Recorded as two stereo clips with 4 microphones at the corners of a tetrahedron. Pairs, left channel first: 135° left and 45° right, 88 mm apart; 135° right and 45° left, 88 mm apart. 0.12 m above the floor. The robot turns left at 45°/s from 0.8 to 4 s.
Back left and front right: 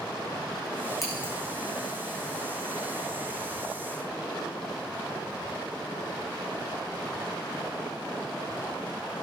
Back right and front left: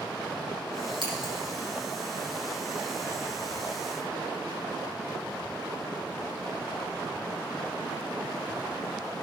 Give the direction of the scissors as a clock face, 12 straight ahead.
10 o'clock.